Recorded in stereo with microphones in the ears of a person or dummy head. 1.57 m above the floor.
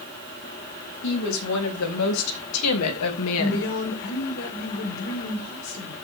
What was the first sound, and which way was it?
A woman speaking, 85° left.